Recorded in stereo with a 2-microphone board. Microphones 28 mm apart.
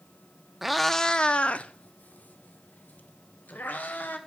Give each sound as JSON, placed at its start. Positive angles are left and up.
{"t": 0.6, "sound": "a cat meowing", "side_deg": -5, "distance_m": 0.7}